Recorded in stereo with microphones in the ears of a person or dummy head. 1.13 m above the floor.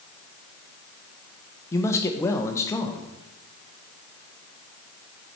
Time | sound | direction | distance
1.7 | a man speaking | 15° left (ahead or behind) | 0.6 m